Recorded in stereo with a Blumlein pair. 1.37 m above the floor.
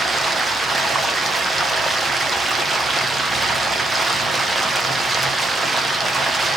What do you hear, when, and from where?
0.0 s running water: 10° right, 0.8 m